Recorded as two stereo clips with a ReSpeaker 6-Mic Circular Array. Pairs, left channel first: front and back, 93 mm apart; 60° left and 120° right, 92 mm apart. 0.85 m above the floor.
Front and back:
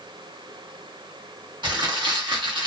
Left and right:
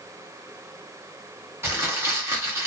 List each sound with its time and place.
1.6 s crumpling: 175° right, 1.1 m